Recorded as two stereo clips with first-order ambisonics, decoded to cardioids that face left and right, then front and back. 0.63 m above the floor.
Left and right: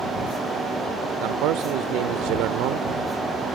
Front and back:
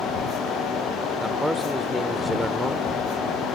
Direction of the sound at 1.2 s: 90° right.